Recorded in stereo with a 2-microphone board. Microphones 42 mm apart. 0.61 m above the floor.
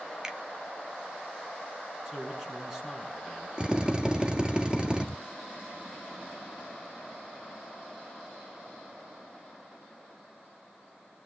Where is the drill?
20° right (ahead or behind), 1.3 m.